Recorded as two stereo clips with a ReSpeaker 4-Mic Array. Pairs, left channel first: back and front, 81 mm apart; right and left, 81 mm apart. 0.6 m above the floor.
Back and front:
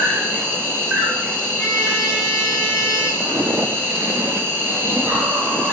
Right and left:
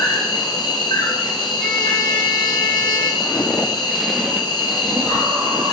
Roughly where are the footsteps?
Ahead right.